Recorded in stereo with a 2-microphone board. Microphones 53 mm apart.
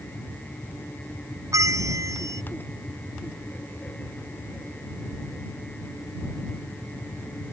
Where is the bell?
85° right.